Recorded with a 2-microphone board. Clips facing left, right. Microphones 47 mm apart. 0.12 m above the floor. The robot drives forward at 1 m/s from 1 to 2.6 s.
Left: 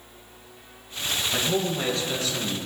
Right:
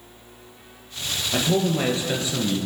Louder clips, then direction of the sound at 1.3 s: Right 6 dB; 15° right (ahead or behind).